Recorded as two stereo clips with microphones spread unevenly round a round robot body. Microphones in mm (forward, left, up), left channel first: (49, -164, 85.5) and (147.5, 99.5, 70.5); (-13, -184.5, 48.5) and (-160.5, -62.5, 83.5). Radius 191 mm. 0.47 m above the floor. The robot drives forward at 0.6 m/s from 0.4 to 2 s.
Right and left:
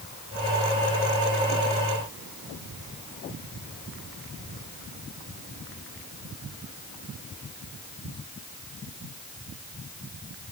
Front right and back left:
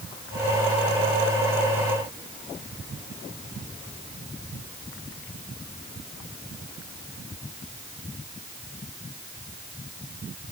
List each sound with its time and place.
Only background noise.